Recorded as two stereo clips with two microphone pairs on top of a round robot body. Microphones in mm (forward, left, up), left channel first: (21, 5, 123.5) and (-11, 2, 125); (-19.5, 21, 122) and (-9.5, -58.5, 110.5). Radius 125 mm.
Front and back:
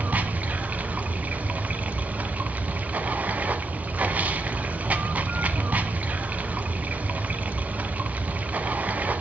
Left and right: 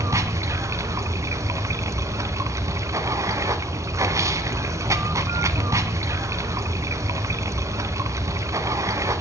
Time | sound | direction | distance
0.0 | running water | 135° right | 1.4 m